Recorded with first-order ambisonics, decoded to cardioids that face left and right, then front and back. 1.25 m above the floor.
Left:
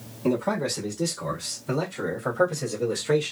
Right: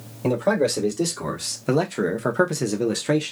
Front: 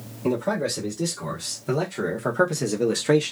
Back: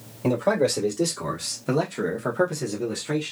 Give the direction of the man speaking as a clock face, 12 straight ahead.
4 o'clock.